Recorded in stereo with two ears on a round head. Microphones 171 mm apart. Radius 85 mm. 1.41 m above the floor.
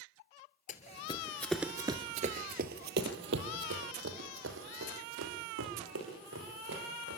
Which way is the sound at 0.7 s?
45° left (ahead or behind).